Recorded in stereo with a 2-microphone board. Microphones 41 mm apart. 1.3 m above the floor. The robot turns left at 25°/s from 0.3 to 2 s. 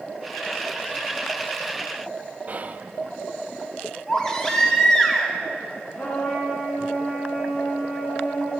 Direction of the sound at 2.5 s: 40° right (ahead or behind).